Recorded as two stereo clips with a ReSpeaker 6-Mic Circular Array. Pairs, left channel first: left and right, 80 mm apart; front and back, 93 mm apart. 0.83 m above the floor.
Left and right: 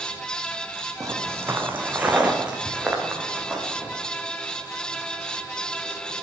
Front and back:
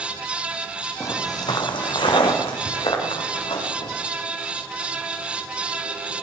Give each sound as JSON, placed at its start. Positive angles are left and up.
{"t": 1.0, "sound": "footsteps", "azimuth_deg": -50, "distance_m": 1.4}